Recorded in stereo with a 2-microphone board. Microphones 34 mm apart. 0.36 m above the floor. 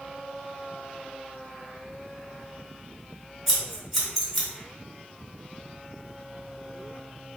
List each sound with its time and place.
3.5 s scissors: centre (ahead or behind), 2.0 m